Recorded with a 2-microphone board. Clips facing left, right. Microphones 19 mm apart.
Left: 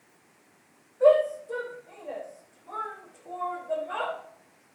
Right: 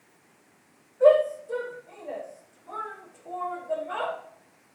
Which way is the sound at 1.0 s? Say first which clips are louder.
Right 1 dB; 10° right (ahead or behind).